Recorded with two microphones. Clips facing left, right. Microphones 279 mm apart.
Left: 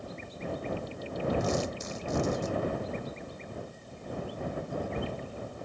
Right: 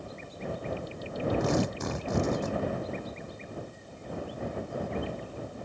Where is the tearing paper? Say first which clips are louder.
Right 3 dB; 65° right (ahead or behind).